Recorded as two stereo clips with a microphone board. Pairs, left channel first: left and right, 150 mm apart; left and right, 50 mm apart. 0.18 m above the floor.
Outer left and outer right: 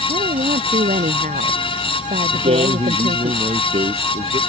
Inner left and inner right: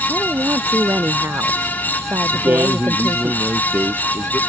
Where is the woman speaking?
60° right (ahead or behind); by 3.3 s 70° right (ahead or behind).